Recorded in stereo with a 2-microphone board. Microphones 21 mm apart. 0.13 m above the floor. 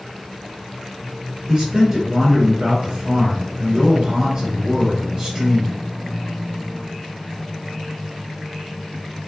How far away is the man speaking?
About 2 m.